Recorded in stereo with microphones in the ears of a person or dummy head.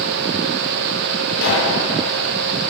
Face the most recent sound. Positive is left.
turn(degrees=60)  # may be behind; listen again after turning